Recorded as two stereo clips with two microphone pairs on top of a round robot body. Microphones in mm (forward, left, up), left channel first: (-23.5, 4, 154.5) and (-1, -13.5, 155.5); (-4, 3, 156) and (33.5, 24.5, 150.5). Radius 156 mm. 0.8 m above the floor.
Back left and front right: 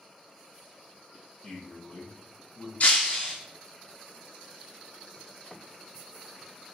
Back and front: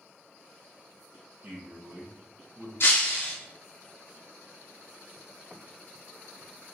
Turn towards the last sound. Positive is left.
turn(degrees=180)